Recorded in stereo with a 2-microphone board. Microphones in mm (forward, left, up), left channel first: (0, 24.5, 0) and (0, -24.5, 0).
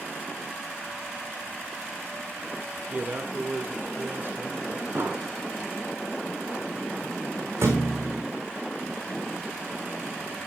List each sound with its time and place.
2.9 s a man speaking: 35° right (ahead or behind), 1.4 m; by 4.8 s 50° right (ahead or behind), 2.5 m
5.0 s an explosion: 55° right (ahead or behind), 2.5 m
7.6 s a thud: 70° right (ahead or behind), 4 m